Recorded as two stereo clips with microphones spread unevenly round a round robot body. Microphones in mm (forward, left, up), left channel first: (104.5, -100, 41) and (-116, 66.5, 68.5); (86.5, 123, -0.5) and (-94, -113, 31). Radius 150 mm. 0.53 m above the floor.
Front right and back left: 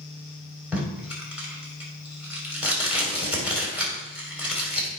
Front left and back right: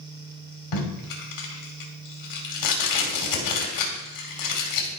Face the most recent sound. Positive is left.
turn(degrees=55)